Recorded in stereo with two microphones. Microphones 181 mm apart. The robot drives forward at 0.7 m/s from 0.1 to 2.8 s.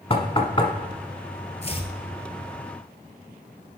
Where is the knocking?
35° left (ahead or behind), 1.0 m; by 0.7 s 30° left (ahead or behind), 1.1 m.